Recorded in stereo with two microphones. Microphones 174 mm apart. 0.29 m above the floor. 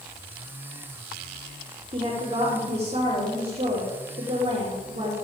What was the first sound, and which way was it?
A woman speaking, 35° right (ahead or behind).